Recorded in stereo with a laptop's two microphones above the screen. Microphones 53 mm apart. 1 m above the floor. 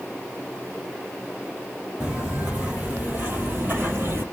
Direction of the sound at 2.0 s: 25° right (ahead or behind).